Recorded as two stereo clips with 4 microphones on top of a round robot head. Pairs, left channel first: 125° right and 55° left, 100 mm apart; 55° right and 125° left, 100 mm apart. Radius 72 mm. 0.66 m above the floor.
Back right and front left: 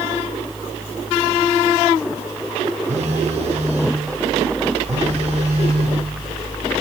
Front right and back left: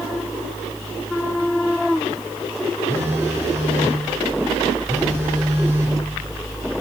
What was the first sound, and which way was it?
A phone buzzing, 60° left.